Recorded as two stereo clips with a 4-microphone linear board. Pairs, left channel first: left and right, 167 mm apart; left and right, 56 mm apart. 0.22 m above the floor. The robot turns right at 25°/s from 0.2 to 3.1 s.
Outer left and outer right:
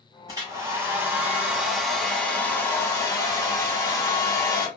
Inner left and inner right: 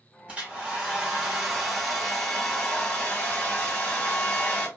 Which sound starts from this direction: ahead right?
A hair dryer, at 0.3 s.